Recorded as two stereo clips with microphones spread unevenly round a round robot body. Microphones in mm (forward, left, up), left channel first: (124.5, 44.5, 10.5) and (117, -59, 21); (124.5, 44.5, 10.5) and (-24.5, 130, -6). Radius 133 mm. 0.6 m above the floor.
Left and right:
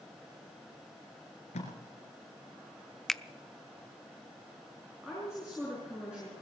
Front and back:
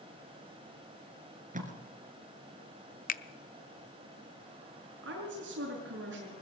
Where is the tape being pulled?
110° left, 2.5 m.